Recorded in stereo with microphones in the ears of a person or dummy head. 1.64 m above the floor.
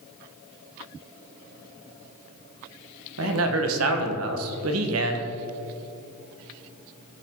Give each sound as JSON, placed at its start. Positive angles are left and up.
{"t": 3.2, "sound": "a man speaking", "side_deg": -85, "distance_m": 1.7}